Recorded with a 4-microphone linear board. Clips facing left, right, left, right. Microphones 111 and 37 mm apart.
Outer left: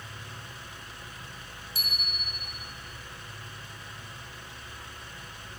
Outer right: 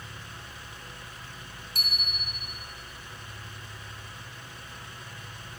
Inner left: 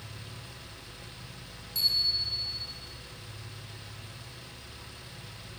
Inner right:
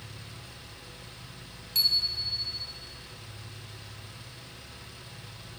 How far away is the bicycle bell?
About 2.5 m.